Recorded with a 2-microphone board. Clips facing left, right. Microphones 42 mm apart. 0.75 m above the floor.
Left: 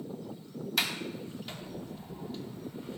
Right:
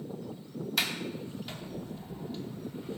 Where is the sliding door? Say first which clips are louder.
Even; 5° left (ahead or behind), 1.0 m.